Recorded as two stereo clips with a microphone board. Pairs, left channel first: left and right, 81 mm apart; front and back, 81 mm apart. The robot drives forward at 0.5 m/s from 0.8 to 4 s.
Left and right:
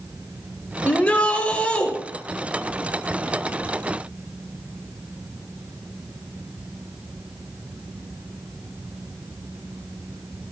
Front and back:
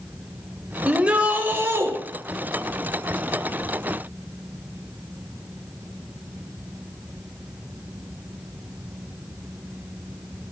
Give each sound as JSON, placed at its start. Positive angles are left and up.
{"t": 0.8, "sound": "a shout", "azimuth_deg": 125, "distance_m": 1.1}